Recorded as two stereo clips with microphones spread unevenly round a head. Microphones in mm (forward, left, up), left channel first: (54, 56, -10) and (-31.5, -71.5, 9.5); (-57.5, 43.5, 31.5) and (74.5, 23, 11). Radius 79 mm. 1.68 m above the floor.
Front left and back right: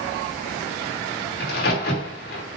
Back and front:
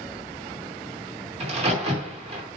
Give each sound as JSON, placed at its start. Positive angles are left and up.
{"t": 1.4, "sound": "a crack", "azimuth_deg": 35, "distance_m": 3.0}